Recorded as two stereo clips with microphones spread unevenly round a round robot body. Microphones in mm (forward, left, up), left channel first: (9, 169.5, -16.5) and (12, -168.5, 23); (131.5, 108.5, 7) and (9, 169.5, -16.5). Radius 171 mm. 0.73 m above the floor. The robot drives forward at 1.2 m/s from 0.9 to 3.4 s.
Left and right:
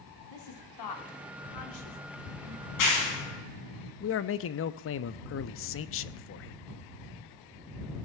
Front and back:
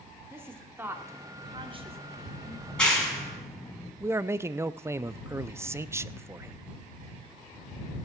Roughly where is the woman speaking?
Left.